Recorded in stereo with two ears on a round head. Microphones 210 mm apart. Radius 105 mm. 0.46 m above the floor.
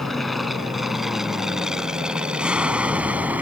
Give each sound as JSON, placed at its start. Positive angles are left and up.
{"t": 0.0, "sound": "an aircraft", "side_deg": 0}